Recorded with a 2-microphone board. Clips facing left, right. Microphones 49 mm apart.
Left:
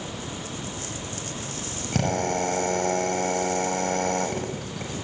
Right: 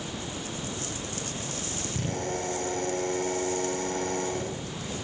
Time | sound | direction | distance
1.9 | a drill | 85° left | 6 m